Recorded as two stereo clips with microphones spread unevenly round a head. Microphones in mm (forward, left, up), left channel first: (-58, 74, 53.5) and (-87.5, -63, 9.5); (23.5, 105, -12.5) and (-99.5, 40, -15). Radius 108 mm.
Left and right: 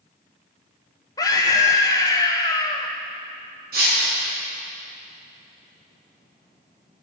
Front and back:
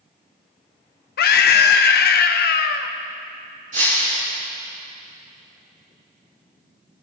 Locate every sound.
1.2 s a scream: 5° left, 0.5 m
3.7 s breaking glass: 105° right, 4 m